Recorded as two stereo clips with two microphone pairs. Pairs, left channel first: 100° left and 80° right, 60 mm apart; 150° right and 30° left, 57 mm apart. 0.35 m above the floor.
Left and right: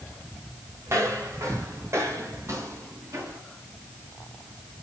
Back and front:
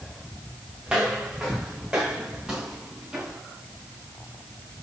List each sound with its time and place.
0.9 s footsteps: 45° right, 5.5 m